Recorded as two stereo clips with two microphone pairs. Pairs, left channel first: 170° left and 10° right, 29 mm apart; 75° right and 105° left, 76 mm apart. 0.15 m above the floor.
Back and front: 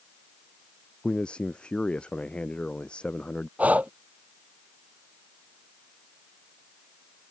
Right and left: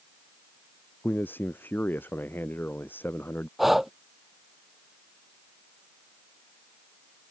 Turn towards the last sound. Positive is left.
turn(degrees=20)